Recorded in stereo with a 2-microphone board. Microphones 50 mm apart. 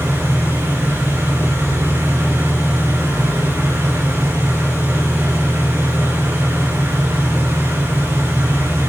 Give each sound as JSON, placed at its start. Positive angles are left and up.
{"t": 0.0, "sound": "an engine running", "side_deg": -85, "distance_m": 9.0}